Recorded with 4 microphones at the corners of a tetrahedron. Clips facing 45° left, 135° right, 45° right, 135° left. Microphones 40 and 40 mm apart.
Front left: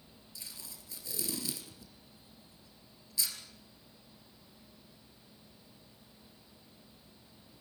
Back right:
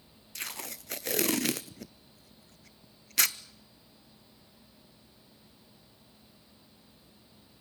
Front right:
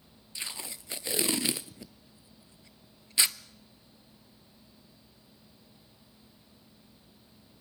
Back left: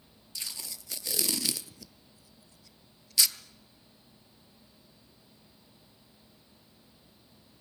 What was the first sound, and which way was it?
Tape being pulled, 110° right.